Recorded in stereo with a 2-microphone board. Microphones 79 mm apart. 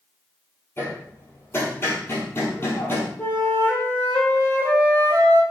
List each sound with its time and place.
0.8 s hammering: 30° left (ahead or behind), 1.9 m
3.2 s a flute: 25° left (ahead or behind), 1.8 m